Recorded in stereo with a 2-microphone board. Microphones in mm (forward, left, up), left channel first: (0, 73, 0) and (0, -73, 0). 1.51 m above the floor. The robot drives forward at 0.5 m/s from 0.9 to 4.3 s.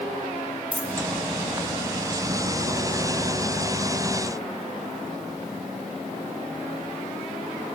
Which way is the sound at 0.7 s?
35° right (ahead or behind).